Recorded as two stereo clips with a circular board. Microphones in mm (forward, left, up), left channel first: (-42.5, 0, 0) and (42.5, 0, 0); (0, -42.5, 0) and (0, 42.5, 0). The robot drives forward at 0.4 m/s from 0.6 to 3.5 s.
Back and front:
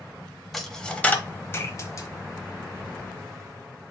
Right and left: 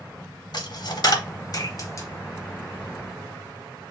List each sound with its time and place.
0.5 s a dropped coin: 90° right, 0.7 m; by 2.1 s 135° right, 0.9 m